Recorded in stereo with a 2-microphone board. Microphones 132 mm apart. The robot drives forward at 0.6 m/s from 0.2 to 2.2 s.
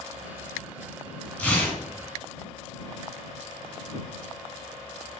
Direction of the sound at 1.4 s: 15° left (ahead or behind).